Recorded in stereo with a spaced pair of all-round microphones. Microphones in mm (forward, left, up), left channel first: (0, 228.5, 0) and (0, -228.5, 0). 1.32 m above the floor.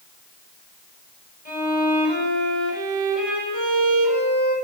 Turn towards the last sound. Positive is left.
turn(degrees=-75)  # may be behind; listen again after turning